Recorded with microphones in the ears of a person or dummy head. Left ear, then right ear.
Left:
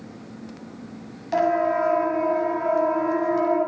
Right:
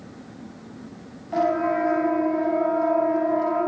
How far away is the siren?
About 8 m.